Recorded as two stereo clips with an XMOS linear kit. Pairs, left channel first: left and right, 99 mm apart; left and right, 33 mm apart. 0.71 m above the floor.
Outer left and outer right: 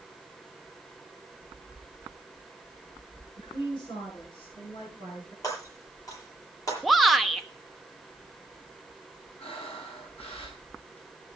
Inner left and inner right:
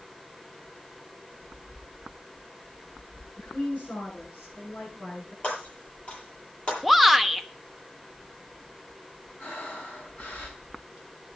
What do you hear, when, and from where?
3.4 s a woman speaking: 60° left (ahead or behind), 9 m; by 5.3 s 65° left (ahead or behind), 11 m
5.4 s breaking glass: 35° left (ahead or behind), 8.5 m
6.8 s a shout: centre (ahead or behind), 1.0 m
9.4 s breathing: 80° left, 6 m